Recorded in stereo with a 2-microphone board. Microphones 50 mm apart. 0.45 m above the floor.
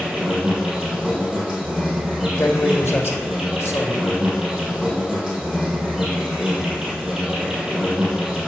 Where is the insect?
15° right (ahead or behind), 2.5 m.